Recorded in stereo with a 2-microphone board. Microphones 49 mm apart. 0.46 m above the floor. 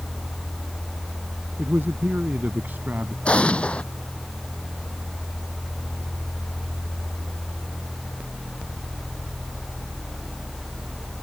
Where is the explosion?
25° left (ahead or behind).